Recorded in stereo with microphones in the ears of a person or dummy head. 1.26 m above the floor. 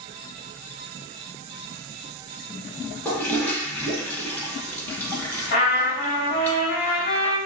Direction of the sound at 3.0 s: 10° left (ahead or behind).